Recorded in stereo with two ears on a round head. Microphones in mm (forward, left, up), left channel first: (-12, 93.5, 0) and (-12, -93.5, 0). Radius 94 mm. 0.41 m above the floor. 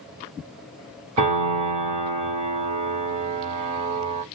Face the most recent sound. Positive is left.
turn(degrees=-30)  # may be behind; listen again after turning